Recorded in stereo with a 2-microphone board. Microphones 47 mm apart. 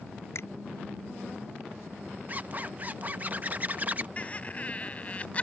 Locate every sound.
0.3 s a finger snap: 80° left
2.3 s a zipper: 35° right (ahead or behind)
4.2 s laughter: 30° left (ahead or behind)